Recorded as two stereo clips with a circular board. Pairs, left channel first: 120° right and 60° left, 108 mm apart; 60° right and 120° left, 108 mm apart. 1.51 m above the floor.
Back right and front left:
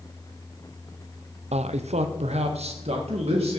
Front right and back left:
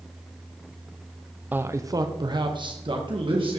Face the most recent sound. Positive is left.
turn(degrees=85)